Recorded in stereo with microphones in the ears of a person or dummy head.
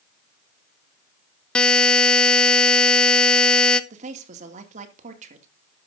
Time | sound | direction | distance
1.6 | a buzzer | 5° left (ahead or behind) | 0.6 m
3.9 | a woman speaking | 45° right (ahead or behind) | 2 m